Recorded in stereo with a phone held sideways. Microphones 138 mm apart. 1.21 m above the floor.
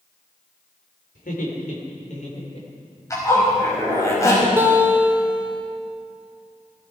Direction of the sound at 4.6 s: 15° right (ahead or behind).